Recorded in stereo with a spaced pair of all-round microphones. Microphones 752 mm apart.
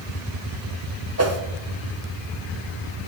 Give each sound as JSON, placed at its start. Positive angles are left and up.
{"t": 1.2, "sound": "a whoosh", "side_deg": -25, "distance_m": 0.5}